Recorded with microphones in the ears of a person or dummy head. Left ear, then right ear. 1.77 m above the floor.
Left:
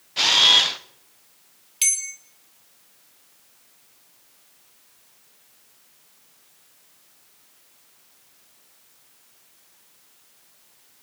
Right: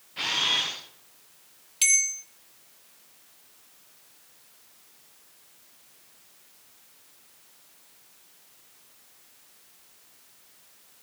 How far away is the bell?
About 1.1 m.